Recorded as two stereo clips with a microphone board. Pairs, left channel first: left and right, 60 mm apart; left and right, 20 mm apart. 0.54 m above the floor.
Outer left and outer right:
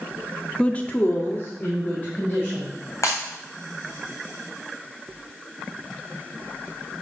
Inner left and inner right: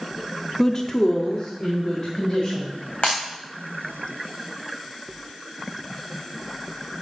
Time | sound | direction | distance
0.6 | a woman speaking | 15° left (ahead or behind) | 0.7 m
3.0 | breaking glass | 70° left (ahead or behind) | 3.5 m